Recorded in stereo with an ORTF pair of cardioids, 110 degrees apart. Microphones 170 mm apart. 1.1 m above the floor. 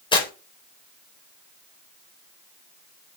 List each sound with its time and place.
0.1 s tearing paper: 30° left, 4 m